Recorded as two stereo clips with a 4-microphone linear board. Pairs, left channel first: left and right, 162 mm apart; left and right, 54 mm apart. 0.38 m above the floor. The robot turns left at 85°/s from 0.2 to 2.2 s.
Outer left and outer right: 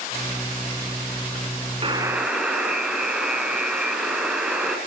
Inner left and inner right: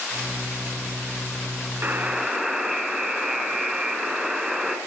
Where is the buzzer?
140° right, 3.5 m; by 4.8 s 175° right, 3.5 m.